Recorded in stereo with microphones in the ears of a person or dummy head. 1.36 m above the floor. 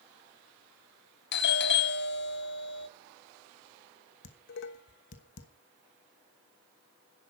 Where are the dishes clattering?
60° left (ahead or behind), 1.2 m.